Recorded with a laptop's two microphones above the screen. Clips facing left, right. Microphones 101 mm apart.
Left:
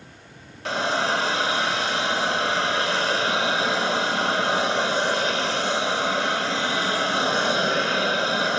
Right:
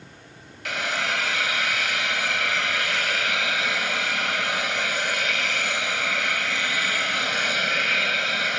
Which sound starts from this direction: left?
A hiss, at 0.7 s.